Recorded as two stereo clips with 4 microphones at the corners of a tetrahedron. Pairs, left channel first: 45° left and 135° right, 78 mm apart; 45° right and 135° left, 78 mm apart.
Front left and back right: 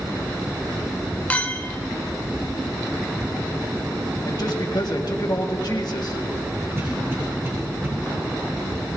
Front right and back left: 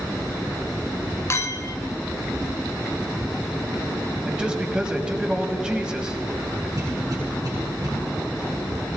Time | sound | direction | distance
1.3 | a clink | 20° right | 0.7 m
4.2 | a man speaking | 60° left | 1.7 m
6.8 | a cough | 170° left | 4.5 m